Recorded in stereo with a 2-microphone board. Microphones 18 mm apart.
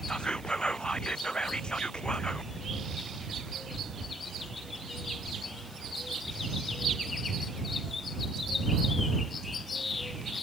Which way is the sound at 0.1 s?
55° left (ahead or behind).